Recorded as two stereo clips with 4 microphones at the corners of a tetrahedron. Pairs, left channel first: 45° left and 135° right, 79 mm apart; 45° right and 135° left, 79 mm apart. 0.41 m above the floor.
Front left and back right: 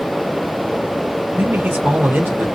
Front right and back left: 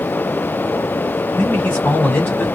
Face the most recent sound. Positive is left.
turn(degrees=-90)